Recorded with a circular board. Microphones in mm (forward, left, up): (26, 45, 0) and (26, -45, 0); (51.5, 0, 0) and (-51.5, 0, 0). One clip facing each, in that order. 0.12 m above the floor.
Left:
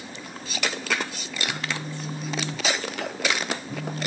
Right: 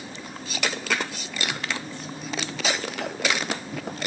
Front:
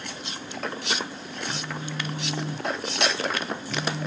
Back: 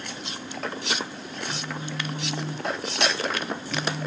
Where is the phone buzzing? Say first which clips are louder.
Left 1 dB, front 1 dB; 65° left, 8.5 m.